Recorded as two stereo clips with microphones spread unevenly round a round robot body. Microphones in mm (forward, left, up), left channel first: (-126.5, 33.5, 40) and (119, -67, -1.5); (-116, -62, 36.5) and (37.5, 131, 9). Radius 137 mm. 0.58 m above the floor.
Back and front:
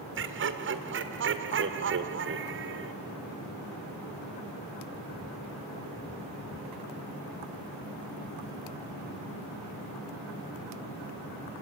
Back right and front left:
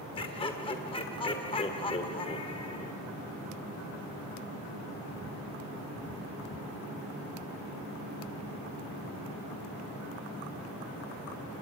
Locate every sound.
0.1 s laughter: 55° right, 1.7 m